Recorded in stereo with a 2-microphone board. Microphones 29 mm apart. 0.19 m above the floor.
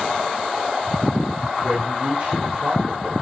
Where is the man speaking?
35° right (ahead or behind), 9 m.